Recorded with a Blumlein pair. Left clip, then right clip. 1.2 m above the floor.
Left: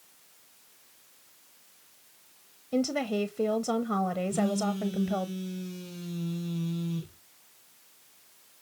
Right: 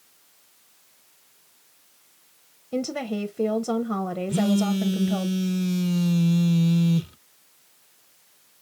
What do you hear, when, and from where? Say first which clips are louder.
2.7 s a woman speaking: even; 5° right, 0.5 m
4.3 s a phone buzzing: right 4 dB; 45° right, 0.6 m